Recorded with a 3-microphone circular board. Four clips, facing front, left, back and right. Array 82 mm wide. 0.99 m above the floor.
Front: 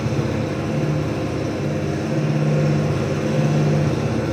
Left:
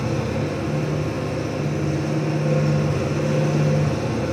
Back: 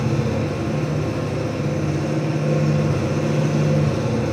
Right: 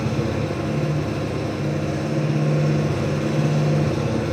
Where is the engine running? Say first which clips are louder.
Even, even; straight ahead, 5.5 m.